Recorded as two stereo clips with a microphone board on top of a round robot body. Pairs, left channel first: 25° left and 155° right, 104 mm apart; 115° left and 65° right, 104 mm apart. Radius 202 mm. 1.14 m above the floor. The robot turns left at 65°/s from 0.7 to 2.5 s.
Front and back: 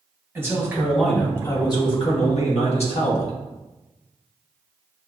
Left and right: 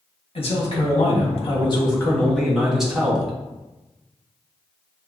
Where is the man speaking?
135° left, 1.5 m; by 3.3 s 20° left, 1.5 m.